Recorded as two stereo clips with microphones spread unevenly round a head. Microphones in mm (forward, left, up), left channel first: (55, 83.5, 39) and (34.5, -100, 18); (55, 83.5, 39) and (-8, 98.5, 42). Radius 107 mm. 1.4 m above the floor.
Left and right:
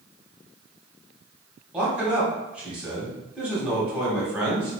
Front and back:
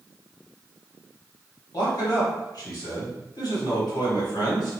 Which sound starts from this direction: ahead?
A man speaking, at 1.7 s.